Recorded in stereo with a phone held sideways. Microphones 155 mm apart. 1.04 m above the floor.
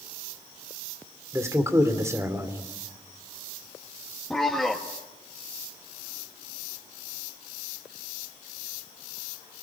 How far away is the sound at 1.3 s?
About 2.5 m.